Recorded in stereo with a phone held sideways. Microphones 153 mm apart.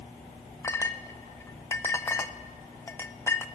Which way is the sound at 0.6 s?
15° left (ahead or behind).